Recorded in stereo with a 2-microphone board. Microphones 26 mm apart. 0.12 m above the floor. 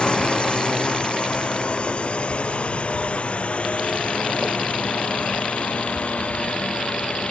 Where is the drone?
45° left (ahead or behind); by 7.3 s 65° left (ahead or behind).